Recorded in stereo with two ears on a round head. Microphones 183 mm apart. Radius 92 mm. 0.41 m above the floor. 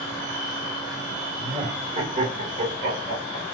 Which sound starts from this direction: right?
Laughter, at 1.4 s.